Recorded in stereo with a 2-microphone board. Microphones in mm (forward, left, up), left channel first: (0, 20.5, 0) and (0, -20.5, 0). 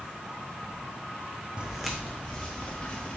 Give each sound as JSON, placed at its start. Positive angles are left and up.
{"t": 1.6, "sound": "footsteps", "side_deg": -20, "distance_m": 0.8}